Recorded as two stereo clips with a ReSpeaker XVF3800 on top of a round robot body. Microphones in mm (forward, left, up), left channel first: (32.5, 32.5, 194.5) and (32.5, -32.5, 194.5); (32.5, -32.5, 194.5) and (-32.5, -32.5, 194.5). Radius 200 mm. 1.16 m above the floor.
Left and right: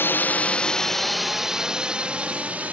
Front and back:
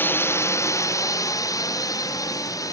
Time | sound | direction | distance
0.0 | a drone | 45° left | ?